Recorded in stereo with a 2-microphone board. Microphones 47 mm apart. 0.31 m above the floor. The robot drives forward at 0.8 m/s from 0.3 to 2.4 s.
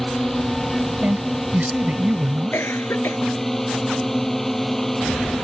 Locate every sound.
0.0 s a drone: 5° left (ahead or behind)
1.0 s a woman speaking: 35° right (ahead or behind)
2.5 s a cough: 55° left (ahead or behind)